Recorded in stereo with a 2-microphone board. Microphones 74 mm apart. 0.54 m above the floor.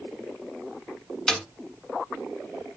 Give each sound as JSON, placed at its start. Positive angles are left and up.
{"t": 1.3, "sound": "a snare drum", "side_deg": 5, "distance_m": 1.0}